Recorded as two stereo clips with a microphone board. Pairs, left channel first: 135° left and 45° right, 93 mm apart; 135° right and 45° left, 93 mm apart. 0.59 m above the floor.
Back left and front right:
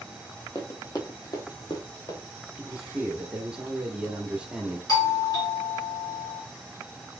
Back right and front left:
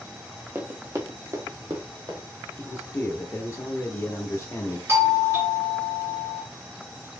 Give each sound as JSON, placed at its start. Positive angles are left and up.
{"t": 0.6, "sound": "running footsteps", "azimuth_deg": 100, "distance_m": 0.8}
{"t": 2.6, "sound": "a man speaking", "azimuth_deg": -115, "distance_m": 0.9}
{"t": 4.9, "sound": "a doorbell", "azimuth_deg": 95, "distance_m": 1.6}